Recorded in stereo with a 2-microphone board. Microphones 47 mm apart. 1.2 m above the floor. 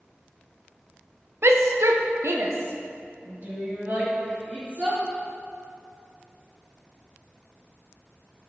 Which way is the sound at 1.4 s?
60° right (ahead or behind).